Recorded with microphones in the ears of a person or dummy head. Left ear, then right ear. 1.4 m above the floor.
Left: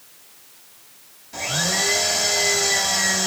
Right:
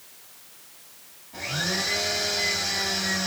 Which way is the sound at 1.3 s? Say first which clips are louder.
Left 5 dB; 60° left (ahead or behind).